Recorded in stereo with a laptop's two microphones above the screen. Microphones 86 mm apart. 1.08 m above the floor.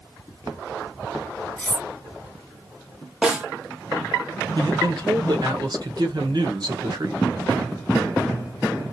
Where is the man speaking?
55° right (ahead or behind), 1.1 m.